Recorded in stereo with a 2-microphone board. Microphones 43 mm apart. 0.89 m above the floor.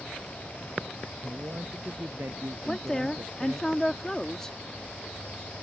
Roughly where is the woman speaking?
Centre.